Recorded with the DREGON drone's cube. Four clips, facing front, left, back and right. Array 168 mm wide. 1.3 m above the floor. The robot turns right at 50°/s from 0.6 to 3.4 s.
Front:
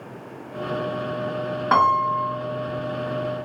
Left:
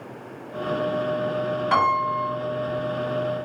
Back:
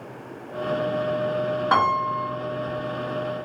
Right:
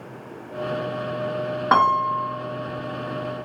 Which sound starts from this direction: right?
A piano, at 1.7 s.